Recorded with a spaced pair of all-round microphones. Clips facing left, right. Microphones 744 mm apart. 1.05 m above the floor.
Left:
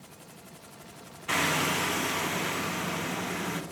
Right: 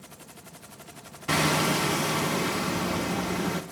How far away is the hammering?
About 1.0 m.